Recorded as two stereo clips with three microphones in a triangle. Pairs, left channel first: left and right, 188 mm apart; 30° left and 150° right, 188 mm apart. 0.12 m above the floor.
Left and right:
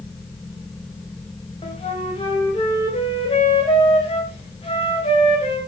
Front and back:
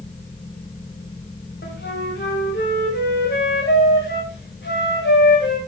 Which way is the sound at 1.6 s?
35° left.